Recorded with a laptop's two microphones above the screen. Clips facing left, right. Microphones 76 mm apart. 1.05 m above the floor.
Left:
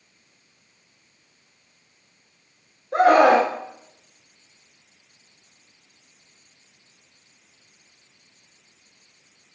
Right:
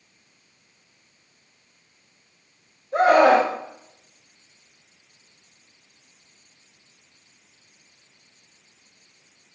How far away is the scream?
About 3 m.